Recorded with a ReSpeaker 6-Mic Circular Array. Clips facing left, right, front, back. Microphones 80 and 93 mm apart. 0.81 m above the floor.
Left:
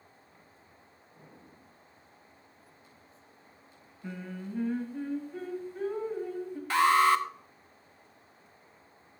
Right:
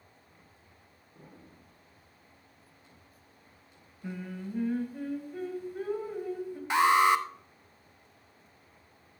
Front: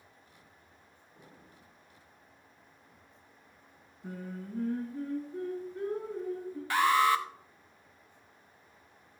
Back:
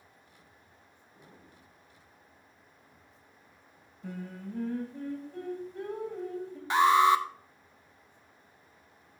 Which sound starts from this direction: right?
An explosion, at 1.1 s.